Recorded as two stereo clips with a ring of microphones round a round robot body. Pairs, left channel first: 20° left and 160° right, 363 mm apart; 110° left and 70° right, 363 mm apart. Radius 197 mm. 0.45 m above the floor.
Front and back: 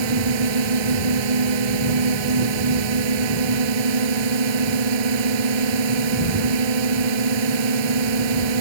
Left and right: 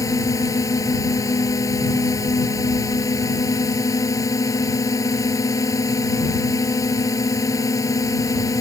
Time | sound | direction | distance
0.0 | a drone | 165° right | ?